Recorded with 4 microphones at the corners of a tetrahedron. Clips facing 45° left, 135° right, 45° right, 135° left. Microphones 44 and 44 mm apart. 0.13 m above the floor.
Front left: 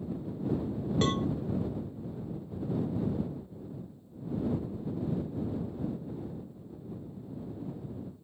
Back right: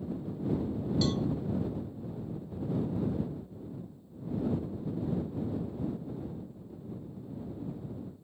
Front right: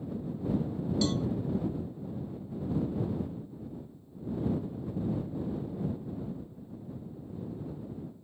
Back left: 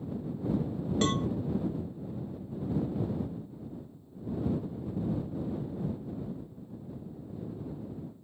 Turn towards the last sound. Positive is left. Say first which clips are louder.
# front left 2 dB, back left 2 dB
turn(degrees=90)